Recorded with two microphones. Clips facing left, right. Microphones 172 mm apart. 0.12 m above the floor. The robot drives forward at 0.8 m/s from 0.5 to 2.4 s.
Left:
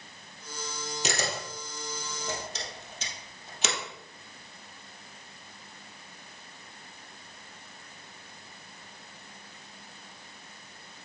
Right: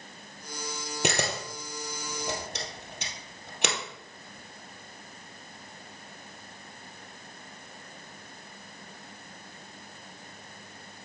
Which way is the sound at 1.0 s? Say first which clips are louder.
Right 4 dB; 65° right (ahead or behind).